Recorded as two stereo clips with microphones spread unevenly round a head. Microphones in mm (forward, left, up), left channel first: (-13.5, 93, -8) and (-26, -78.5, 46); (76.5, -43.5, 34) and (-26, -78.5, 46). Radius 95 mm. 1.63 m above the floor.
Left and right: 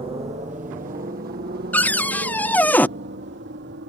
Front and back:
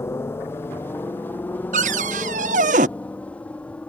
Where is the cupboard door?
170° left.